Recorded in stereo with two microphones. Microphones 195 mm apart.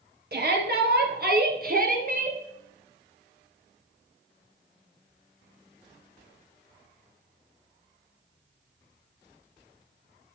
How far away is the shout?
About 2.5 m.